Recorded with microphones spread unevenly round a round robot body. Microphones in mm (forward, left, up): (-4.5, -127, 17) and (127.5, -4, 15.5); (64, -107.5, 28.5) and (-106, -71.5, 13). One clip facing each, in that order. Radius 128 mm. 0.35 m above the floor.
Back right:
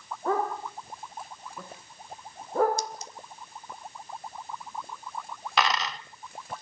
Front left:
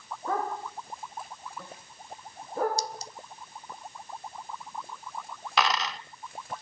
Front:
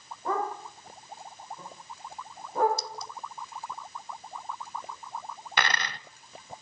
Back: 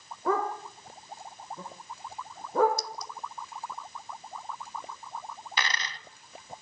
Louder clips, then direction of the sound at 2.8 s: Even, back 1 dB; 35° left.